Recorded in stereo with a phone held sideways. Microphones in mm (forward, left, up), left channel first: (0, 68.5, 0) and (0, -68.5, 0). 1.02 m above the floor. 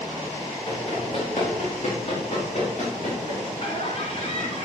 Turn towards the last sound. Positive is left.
turn(degrees=55)  # may be behind; listen again after turning